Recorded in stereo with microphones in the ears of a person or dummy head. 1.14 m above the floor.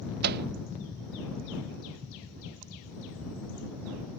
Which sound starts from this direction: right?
A microwave, at 0.2 s.